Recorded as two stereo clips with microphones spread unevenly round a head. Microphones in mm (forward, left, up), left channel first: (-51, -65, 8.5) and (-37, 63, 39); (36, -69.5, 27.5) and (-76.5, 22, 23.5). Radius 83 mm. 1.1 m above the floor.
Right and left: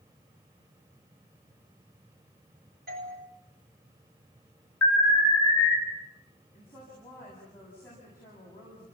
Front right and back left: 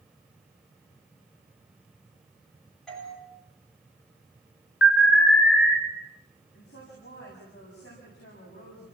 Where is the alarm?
15° right, 4.5 m.